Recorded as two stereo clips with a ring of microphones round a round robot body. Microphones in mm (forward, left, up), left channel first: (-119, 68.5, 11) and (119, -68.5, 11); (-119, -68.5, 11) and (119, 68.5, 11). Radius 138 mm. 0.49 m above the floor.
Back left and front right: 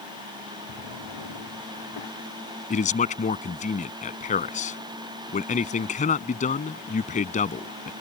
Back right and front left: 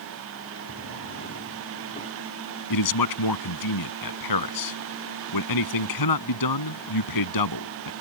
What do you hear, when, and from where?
0.7 s a drawer: 150° left
2.7 s a man speaking: 145° right